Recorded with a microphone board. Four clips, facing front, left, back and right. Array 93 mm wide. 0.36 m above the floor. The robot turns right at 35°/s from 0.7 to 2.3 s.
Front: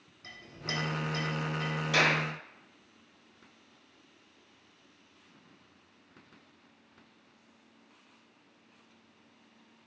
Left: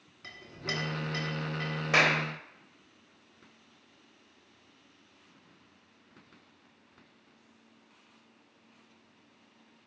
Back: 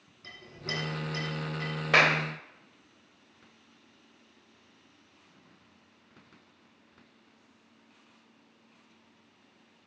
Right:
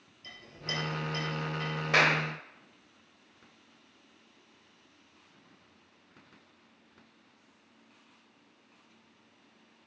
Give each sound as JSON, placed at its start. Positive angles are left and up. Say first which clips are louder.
{"t": 0.2, "sound": "a clink", "louder": "left 3 dB, back 1 dB", "azimuth_deg": 90, "distance_m": 2.5}
{"t": 1.9, "sound": "a clap", "louder": "even, back 4 dB", "azimuth_deg": 175, "distance_m": 1.0}